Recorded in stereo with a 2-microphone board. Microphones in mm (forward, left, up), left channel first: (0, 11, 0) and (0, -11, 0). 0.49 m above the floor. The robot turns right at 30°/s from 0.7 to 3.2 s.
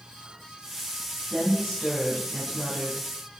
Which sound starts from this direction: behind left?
A woman speaking, at 1.3 s.